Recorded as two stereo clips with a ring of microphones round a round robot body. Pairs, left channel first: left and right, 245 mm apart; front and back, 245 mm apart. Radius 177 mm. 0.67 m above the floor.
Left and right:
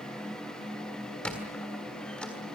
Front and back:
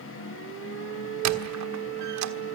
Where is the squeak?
175° left, 1.5 m.